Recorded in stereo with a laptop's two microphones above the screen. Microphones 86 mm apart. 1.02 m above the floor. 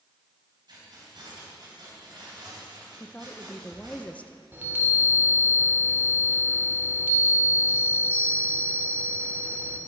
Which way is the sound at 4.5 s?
25° right (ahead or behind).